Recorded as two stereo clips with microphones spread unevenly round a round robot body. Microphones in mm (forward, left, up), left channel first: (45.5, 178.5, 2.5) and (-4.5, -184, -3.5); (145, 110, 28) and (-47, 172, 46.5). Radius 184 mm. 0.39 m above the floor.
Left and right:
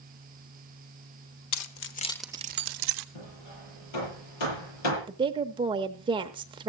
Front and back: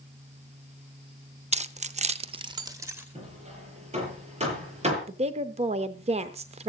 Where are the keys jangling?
105° left, 1.0 m; by 3.0 s 115° right, 1.0 m.